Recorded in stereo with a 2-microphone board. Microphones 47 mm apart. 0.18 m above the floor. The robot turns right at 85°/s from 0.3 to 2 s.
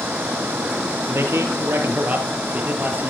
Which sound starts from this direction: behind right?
A man speaking, at 1.1 s.